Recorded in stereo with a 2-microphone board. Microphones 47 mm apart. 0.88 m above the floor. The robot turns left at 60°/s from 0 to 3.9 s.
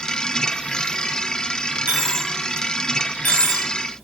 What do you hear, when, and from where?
1.9 s a dropped coin: 40° right (ahead or behind), 1.7 m; by 4.0 s 85° left, 1.7 m